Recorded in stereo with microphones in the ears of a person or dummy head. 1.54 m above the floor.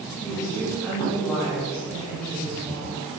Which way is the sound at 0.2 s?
5° right (ahead or behind).